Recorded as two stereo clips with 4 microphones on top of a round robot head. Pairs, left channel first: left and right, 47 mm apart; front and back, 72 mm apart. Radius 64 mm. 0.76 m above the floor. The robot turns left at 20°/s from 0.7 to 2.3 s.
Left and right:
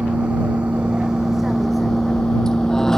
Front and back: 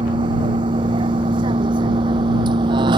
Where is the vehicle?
165° right; by 3.0 s 175° left.